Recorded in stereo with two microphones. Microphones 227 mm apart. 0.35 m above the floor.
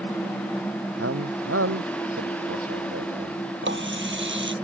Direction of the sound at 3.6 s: 55° right (ahead or behind).